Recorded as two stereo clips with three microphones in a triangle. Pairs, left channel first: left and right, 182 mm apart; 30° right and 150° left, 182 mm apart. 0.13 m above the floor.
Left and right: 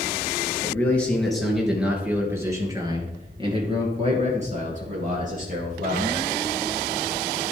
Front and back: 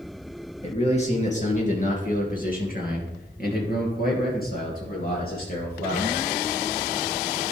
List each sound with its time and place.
0.6 s a man speaking: 15° left, 2.5 m; by 6.1 s 60° right, 3.5 m